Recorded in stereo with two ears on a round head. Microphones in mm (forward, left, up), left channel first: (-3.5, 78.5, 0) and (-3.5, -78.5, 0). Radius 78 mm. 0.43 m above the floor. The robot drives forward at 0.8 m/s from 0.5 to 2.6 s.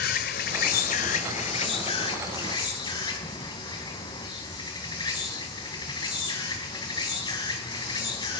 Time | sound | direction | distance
0.0 | an insect | 55° left (ahead or behind) | 1.1 m